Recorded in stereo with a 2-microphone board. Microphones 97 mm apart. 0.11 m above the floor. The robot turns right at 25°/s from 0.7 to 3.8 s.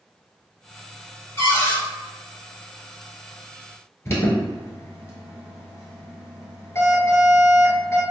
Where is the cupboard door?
20° left (ahead or behind), 1.5 m; by 1.8 s 25° left (ahead or behind), 1.5 m.